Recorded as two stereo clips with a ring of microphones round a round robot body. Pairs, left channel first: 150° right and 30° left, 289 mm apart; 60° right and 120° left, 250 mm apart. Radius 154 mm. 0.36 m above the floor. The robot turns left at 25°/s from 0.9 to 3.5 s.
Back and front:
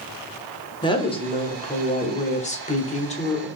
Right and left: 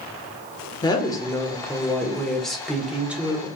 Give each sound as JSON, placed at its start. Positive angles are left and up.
{"t": 0.8, "sound": "a woman speaking", "azimuth_deg": -105, "distance_m": 1.0}